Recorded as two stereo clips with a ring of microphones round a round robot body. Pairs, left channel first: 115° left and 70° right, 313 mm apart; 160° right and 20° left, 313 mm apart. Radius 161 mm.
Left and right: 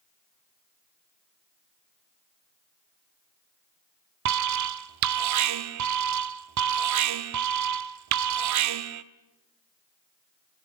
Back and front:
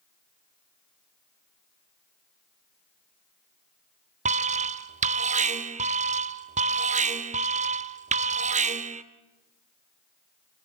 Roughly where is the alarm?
Ahead right.